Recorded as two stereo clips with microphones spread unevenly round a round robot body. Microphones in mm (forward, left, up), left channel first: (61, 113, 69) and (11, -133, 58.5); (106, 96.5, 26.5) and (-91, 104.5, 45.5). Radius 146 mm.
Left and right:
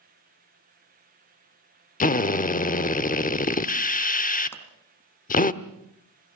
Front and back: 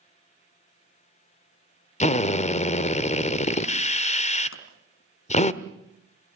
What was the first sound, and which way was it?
A drill, 30° left.